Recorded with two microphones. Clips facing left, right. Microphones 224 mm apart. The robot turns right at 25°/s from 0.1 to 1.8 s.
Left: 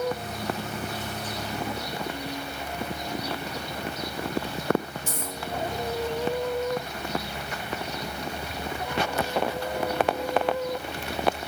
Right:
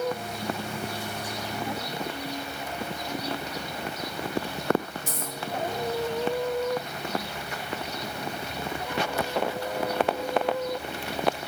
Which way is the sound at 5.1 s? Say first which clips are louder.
Left 1 dB; 40° right (ahead or behind).